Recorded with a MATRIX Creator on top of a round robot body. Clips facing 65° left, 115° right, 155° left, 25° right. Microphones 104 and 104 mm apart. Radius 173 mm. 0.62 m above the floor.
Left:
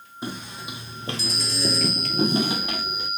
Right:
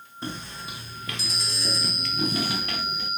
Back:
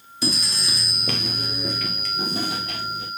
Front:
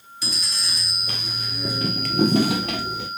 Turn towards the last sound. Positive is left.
turn(degrees=-10)